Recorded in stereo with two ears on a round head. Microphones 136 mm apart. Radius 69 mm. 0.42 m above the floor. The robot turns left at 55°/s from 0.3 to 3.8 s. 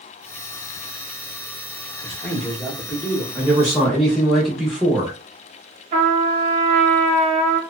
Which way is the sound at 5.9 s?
40° right (ahead or behind).